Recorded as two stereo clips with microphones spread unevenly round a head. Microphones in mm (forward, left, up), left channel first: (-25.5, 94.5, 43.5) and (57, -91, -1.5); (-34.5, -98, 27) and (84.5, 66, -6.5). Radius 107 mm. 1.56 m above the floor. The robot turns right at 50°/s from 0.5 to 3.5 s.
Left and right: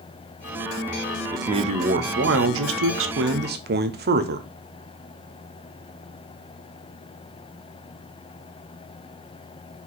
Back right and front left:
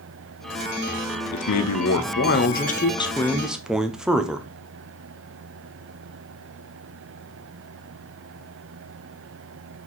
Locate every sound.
1.3 s a man speaking: 140° right, 1.1 m; by 4.5 s 30° right, 1.1 m